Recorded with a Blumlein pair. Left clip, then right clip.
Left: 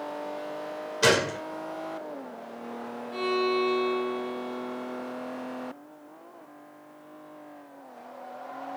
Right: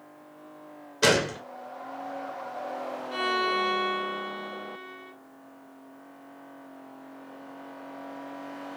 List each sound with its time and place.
1.0 s a gunshot: 5° right, 1.1 m
3.1 s a violin: 60° right, 2 m